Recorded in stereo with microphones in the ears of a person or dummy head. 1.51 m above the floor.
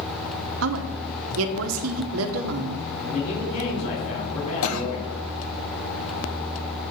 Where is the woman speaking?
75° right (ahead or behind), 0.9 m.